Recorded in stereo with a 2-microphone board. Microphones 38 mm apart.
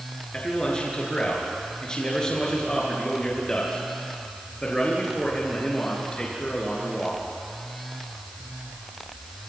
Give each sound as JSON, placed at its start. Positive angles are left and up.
{"t": 0.3, "sound": "a man speaking", "side_deg": 25, "distance_m": 6.0}